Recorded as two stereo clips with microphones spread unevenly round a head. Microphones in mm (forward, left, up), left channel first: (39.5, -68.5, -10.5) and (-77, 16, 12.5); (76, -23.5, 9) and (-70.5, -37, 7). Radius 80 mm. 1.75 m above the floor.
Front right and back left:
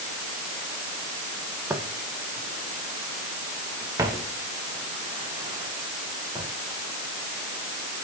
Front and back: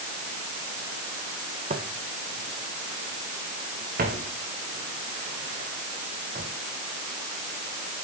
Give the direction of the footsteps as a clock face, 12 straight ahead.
5 o'clock.